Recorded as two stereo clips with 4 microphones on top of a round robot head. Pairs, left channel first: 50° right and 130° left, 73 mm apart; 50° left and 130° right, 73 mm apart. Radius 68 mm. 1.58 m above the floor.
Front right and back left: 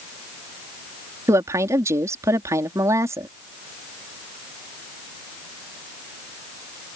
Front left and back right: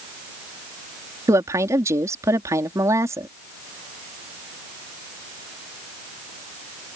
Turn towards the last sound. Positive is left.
turn(degrees=180)